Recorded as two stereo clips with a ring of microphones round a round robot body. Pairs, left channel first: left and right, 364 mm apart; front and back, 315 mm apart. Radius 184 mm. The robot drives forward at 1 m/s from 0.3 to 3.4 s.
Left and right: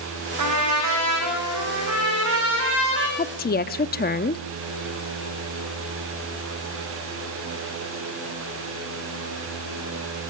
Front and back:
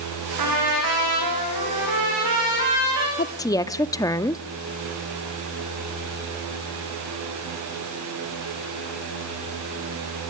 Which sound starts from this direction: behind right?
A trumpet, at 0.4 s.